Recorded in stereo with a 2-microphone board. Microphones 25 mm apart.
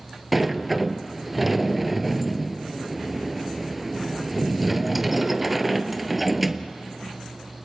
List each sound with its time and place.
0.3 s a sliding door: 5° right (ahead or behind), 0.8 m